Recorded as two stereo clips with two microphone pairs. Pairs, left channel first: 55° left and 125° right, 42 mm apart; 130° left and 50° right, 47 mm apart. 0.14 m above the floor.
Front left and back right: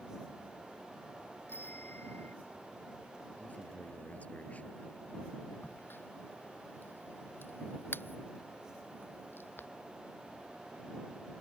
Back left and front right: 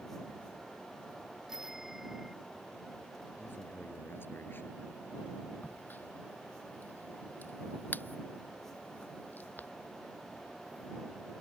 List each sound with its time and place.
1.5 s a bicycle bell: 30° left
3.4 s a man speaking: 100° left
5.6 s a crack: 80° left